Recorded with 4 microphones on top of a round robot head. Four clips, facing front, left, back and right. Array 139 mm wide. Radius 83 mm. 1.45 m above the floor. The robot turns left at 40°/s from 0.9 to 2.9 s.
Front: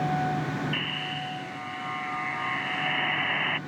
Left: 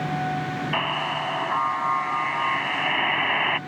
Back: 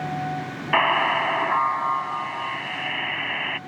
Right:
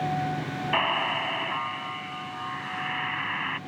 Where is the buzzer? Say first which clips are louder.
Right 2 dB, back 14 dB; straight behind; by 3.6 s 100° left.